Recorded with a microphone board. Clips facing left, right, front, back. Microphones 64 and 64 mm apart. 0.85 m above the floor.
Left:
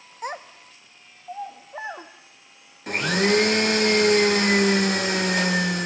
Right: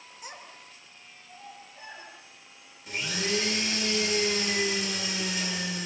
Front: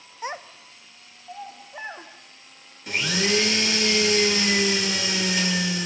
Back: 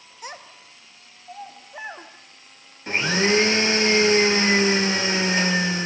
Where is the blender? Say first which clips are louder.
Left 10 dB, back 4 dB; 125° left, 1.5 m.